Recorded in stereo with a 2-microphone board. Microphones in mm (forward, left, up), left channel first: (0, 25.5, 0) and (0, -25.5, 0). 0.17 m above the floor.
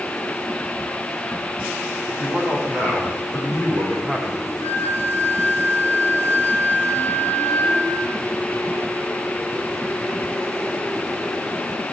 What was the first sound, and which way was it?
A man speaking, 5° right (ahead or behind).